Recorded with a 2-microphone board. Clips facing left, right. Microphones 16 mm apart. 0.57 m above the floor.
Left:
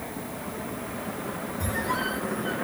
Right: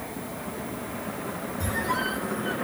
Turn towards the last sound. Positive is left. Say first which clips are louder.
# right 1 dB
turn(degrees=-5)  # may be behind; listen again after turning